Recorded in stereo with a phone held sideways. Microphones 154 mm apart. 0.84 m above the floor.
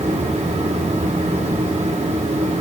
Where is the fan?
45° right (ahead or behind), 1.2 m.